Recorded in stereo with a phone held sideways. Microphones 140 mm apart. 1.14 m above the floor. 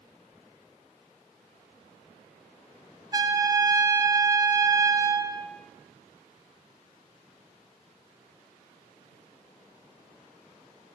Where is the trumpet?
25° right (ahead or behind), 0.7 m.